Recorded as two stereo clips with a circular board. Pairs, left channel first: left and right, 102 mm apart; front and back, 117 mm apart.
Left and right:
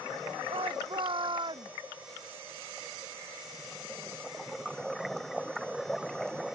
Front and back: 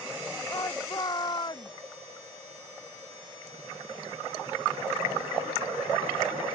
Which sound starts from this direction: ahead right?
A shout, at 0.5 s.